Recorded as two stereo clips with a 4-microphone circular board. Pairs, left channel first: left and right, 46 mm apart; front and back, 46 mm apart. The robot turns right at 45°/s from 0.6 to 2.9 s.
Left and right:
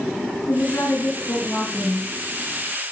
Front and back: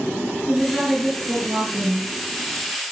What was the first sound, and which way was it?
A woman speaking, 100° left.